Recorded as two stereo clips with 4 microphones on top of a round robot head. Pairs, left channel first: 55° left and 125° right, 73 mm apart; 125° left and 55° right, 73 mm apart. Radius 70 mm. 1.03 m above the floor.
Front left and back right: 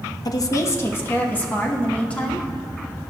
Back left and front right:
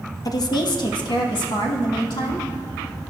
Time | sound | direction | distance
0.2 | a woman speaking | 90° left | 0.7 m